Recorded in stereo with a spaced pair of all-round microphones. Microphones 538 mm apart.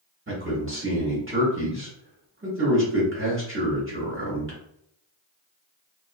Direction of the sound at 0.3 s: 25° right (ahead or behind).